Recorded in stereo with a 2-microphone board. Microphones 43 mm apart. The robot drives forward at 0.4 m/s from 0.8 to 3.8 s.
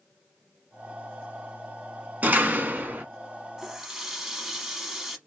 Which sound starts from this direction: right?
A door slam, at 2.2 s.